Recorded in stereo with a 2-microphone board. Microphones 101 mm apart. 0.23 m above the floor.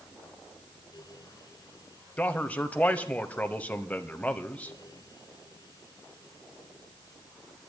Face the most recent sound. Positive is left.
turn(degrees=15)  # may be behind; listen again after turning